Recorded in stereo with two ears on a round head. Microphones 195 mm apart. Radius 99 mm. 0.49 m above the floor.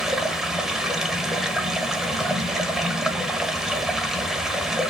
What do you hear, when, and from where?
0.0 s running water: centre (ahead or behind), 1.1 m